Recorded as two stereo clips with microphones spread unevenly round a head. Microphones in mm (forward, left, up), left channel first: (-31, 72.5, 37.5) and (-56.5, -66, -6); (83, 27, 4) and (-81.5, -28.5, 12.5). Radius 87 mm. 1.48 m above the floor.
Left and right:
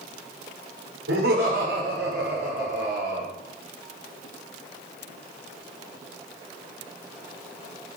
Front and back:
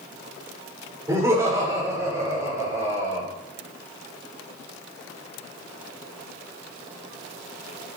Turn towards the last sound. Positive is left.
turn(degrees=-85)